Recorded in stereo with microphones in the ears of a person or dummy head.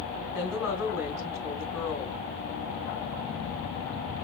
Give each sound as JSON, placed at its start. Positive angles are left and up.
{"t": 0.3, "sound": "a woman speaking", "side_deg": -15, "distance_m": 8.5}